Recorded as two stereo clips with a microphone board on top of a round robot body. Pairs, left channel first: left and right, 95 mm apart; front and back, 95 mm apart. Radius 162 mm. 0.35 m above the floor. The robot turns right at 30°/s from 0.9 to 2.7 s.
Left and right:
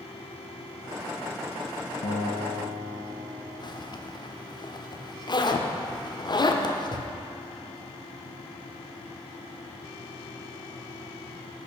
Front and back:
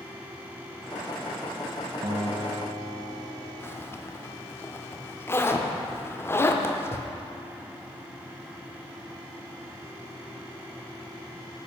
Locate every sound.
2.0 s a guitar: 120° left, 0.8 m; by 3.5 s 140° left, 0.8 m
3.6 s a zipper: 60° left, 0.8 m